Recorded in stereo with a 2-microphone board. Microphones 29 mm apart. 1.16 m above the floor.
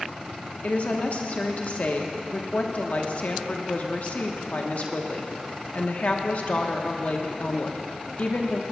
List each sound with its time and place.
0.6 s a woman speaking: 55° left (ahead or behind), 1.1 m